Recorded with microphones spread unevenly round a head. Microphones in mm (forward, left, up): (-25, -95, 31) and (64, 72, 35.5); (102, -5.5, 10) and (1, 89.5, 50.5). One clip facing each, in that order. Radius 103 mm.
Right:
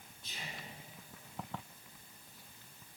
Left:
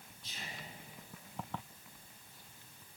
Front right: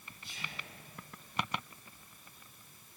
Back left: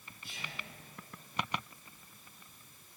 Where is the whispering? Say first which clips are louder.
Right 1 dB, back left 1 dB; 135° right, 4 m.